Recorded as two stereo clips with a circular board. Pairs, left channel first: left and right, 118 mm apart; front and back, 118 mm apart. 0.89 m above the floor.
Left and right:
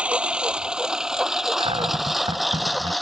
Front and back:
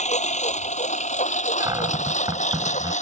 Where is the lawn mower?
10° right; by 3.0 s straight ahead.